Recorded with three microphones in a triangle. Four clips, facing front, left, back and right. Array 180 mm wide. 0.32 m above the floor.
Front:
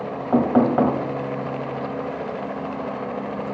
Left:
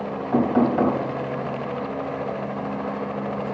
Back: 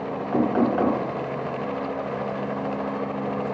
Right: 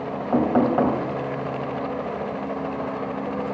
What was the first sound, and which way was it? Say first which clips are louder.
Knocking: even, front 4 dB; 25° right.